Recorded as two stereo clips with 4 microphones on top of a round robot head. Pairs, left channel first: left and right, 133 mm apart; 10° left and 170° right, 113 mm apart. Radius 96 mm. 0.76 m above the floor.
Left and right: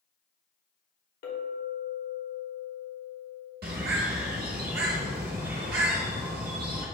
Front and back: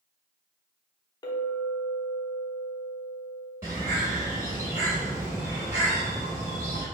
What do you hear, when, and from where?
1.2 s a clink: 70° left, 1.1 m
3.6 s a bird: 90° right, 0.7 m